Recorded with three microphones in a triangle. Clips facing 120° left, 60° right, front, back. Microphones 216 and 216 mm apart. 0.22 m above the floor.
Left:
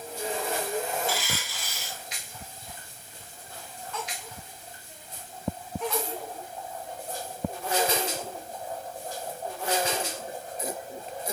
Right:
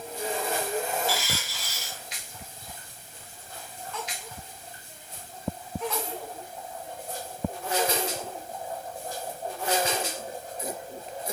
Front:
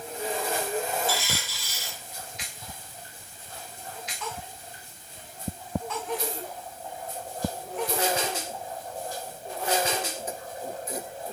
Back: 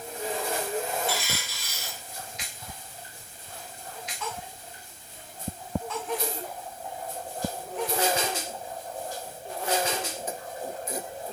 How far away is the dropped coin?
About 5 m.